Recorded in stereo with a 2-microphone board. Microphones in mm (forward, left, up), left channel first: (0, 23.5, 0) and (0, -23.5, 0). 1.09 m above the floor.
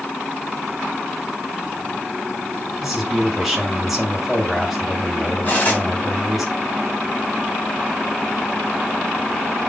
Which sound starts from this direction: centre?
A man speaking, at 2.8 s.